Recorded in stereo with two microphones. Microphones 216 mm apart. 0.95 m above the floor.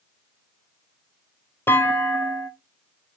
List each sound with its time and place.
1.7 s a clunk: 10° left (ahead or behind), 0.6 m